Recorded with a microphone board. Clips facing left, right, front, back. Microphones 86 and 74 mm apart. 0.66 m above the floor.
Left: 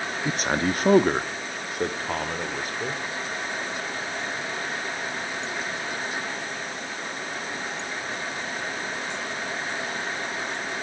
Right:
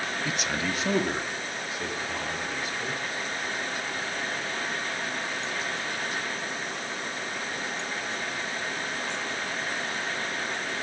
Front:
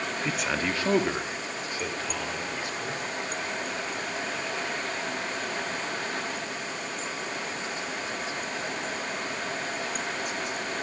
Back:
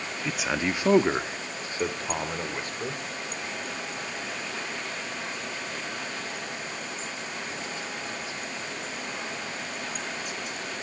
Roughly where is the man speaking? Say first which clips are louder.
Left 7 dB, back 2 dB; left.